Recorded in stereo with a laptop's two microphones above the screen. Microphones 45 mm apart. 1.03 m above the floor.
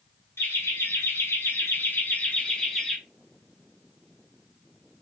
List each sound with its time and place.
0.4 s laughter: 70° left (ahead or behind), 1.3 m; by 3.0 s 5° left (ahead or behind), 0.8 m